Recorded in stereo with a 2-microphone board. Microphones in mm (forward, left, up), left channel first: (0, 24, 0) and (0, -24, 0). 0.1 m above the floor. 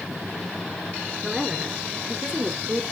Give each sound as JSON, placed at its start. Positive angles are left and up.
{"t": 1.2, "sound": "a woman speaking", "side_deg": -5, "distance_m": 1.4}